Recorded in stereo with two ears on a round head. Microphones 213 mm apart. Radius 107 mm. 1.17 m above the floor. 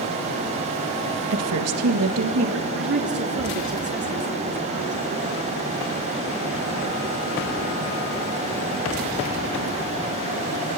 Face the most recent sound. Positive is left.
turn(degrees=-50)  # may be behind; listen again after turning